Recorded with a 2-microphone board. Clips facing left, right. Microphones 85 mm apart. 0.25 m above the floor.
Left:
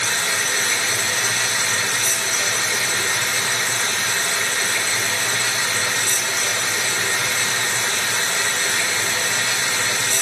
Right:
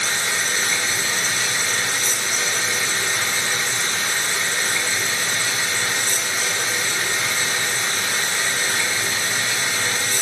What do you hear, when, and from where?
0.0 s running water: 85° left, 1.7 m